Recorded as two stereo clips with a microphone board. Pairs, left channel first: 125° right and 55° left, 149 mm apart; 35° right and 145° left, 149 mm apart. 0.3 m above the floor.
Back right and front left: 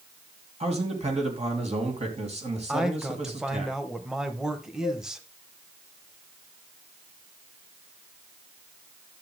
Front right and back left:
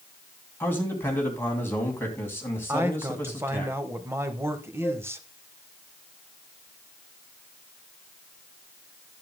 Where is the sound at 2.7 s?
130° left, 0.9 m.